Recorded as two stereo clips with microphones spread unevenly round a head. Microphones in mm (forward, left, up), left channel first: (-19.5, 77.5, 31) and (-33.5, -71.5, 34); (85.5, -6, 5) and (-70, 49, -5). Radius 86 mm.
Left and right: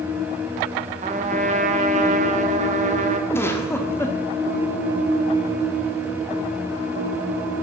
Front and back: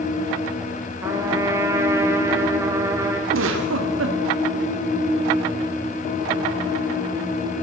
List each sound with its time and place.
1.0 s a trumpet: 125° right, 1.5 m
3.3 s a giggle: 160° left, 1.6 m